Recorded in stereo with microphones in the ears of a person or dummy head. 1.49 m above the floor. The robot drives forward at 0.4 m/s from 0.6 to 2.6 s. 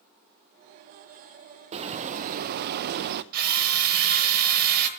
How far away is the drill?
About 1.2 m.